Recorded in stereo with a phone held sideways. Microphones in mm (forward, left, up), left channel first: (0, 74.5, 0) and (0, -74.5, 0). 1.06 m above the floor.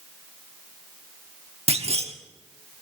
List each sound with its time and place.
1.7 s a clunk: 45° right (ahead or behind), 1.1 m